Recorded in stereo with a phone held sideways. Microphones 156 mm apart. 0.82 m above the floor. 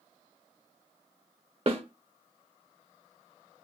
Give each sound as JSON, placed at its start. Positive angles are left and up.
{"t": 1.7, "sound": "a snare drum", "side_deg": -40, "distance_m": 0.6}